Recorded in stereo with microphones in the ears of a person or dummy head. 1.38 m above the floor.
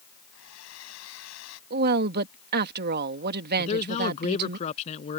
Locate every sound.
0.3 s a hair dryer: 80° left
1.7 s a woman speaking: 55° right (ahead or behind)
3.6 s a man speaking: 35° left (ahead or behind)